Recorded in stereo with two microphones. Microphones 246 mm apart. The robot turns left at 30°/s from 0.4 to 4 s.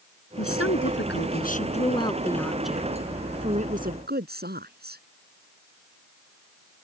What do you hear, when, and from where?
0.4 s a woman speaking: 65° left; by 5.0 s 40° right